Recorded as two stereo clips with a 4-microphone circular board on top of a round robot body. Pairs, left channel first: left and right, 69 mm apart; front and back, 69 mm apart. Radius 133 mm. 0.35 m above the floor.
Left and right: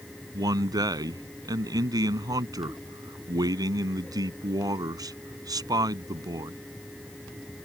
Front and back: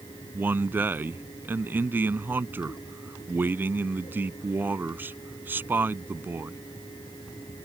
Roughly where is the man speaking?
Behind right.